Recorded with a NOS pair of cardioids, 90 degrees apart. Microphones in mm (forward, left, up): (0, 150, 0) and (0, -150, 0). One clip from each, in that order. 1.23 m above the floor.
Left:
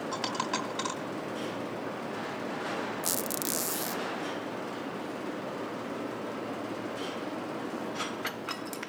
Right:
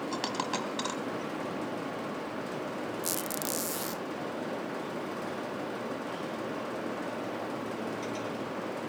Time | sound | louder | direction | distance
0.1 | a dropped coin | left 1 dB | 5° right | 3 m
3.0 | a squeak | left 1 dB | 10° left | 0.5 m